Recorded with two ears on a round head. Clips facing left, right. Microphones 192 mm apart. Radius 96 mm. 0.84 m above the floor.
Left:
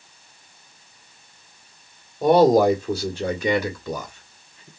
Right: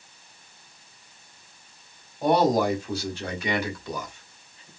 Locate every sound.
2.2 s a man speaking: 70° left (ahead or behind), 2 m; by 4.7 s 65° left (ahead or behind), 1.7 m